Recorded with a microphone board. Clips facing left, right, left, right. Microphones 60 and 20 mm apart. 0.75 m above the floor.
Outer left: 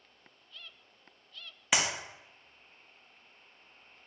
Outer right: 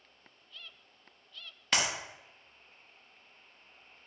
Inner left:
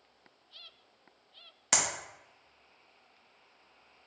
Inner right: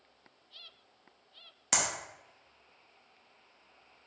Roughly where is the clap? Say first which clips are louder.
Outer left 1 dB, inner left 1 dB; centre.